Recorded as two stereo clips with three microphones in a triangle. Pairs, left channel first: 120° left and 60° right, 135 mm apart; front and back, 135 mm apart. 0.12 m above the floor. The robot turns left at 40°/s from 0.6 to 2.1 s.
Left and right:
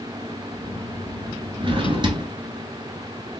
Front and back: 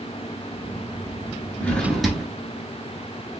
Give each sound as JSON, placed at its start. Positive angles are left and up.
{"t": 1.6, "sound": "a drawer", "azimuth_deg": -70, "distance_m": 1.2}